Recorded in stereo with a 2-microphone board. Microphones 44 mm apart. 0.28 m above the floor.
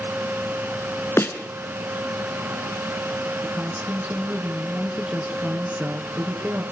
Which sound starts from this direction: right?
A woman speaking, at 3.4 s.